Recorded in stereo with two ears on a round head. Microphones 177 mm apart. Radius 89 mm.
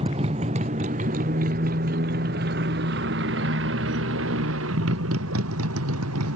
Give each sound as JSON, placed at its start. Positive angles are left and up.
{"t": 0.0, "sound": "a motorcycle", "side_deg": -30}